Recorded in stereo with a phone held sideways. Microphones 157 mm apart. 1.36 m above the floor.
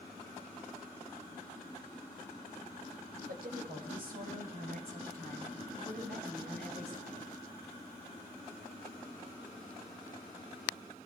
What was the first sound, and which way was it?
A woman speaking, 70° right (ahead or behind).